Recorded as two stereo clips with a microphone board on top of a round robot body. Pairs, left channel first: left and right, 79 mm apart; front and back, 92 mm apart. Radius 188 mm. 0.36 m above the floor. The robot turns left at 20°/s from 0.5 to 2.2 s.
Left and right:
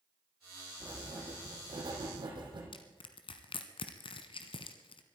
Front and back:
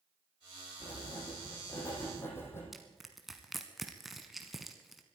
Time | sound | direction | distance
0.8 | writing | 40° right | 4.5 m
2.7 | crushing | 90° left | 0.7 m